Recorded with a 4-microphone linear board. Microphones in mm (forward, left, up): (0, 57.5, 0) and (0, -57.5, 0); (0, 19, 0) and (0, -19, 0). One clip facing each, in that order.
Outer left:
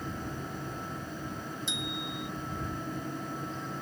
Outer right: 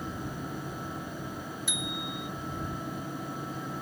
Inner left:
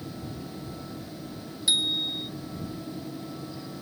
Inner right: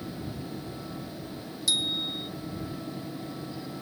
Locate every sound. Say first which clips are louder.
1.7 s a bicycle bell: outer right 1 dB, inner left 3 dB; 25° left (ahead or behind)